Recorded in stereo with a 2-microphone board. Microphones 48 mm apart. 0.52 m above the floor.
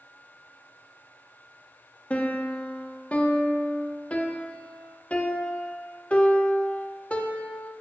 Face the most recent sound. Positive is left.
turn(degrees=30)  # may be behind; listen again after turning